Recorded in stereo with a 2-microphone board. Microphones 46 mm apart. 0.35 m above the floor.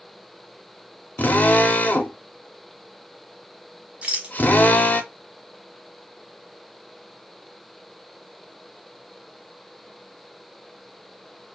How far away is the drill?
About 0.6 m.